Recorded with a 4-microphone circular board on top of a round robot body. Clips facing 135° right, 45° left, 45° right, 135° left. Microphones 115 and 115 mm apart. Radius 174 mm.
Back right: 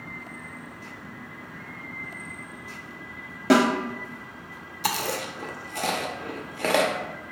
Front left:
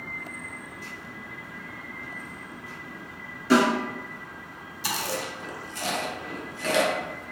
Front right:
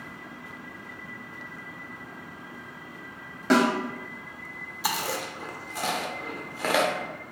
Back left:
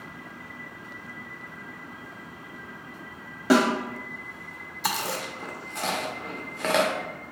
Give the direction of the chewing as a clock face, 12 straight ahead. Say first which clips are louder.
Back right 3 dB, even; 4 o'clock.